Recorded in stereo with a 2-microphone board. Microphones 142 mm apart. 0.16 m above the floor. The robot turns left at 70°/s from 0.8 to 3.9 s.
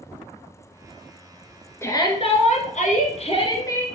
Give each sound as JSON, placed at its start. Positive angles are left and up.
{"t": 1.8, "sound": "a shout", "azimuth_deg": 160, "distance_m": 1.9}